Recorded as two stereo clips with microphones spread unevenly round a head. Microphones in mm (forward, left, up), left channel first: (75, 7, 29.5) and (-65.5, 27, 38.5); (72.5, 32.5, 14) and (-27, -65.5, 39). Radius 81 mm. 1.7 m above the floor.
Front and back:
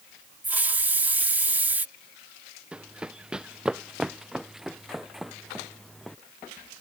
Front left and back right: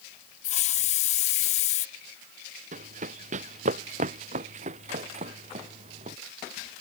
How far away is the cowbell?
I don't hear a cowbell.